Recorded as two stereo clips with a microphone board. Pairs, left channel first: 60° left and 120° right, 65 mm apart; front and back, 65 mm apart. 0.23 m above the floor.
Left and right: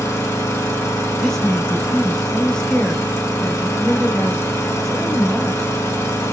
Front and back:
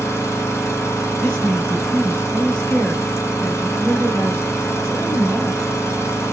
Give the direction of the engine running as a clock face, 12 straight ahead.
11 o'clock.